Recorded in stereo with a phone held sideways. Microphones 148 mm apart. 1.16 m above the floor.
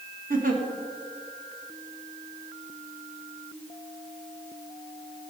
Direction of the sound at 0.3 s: 65° right (ahead or behind).